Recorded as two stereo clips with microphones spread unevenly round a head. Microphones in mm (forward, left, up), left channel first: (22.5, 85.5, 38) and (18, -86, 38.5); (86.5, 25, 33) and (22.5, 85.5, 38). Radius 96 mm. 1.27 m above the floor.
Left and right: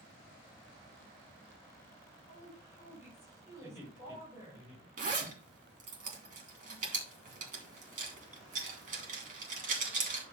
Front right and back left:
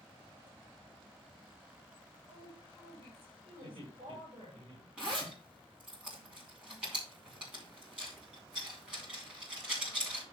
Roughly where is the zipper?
Behind right.